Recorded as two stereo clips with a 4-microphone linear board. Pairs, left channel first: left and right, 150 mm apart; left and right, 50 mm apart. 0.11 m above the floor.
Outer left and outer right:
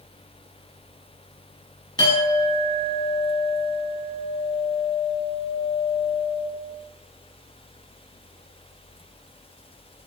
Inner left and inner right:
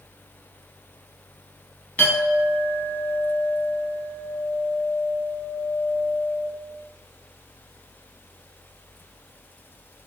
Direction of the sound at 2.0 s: 30° left (ahead or behind).